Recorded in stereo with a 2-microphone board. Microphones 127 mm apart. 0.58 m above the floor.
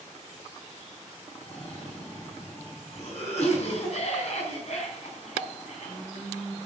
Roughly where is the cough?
Left.